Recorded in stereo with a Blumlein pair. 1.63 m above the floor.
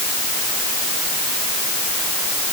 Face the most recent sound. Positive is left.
No sound to turn to.